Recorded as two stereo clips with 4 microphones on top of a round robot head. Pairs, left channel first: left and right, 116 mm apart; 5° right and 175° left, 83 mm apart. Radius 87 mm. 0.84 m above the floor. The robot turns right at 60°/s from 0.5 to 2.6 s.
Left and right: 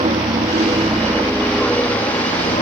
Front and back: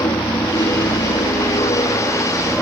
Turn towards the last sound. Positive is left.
turn(degrees=60)